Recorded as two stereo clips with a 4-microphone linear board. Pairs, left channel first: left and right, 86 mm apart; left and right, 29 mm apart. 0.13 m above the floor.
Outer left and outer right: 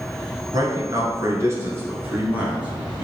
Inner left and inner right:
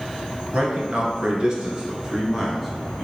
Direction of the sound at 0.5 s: 45° right (ahead or behind).